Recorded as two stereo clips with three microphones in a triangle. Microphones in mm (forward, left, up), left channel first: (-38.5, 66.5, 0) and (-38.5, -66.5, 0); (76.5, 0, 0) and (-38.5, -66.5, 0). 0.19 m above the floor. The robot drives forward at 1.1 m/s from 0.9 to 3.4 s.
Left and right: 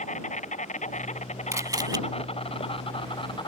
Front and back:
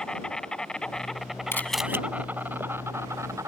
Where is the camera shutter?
35° right; by 2.0 s 100° right.